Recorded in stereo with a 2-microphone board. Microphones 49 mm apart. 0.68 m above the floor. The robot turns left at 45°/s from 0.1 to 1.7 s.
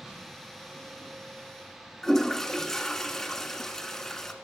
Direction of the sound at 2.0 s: 5° left (ahead or behind).